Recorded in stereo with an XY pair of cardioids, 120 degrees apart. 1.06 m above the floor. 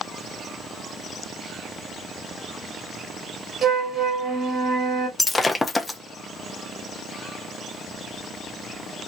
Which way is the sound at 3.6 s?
45° right.